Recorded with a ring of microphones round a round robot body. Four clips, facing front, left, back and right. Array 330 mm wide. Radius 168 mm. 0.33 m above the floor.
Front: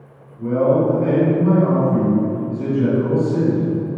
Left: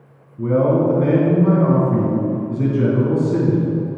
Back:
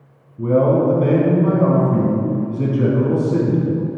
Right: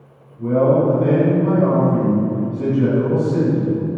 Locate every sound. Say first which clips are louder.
0.4 s a man speaking: right 1 dB, back 1 dB; 135° left, 4 m